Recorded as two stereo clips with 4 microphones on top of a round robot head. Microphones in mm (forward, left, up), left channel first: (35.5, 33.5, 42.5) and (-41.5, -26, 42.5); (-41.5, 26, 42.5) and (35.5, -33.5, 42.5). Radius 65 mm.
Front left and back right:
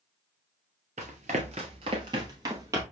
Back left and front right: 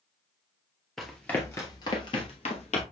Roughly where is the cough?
I don't hear a cough.